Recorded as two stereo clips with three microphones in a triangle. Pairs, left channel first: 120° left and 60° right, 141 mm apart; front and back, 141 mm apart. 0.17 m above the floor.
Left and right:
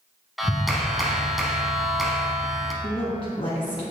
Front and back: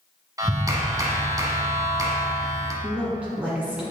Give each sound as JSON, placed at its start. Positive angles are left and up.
{"t": 0.4, "sound": "a clap", "azimuth_deg": -150, "distance_m": 1.3}
{"t": 2.8, "sound": "a woman speaking", "azimuth_deg": 105, "distance_m": 1.5}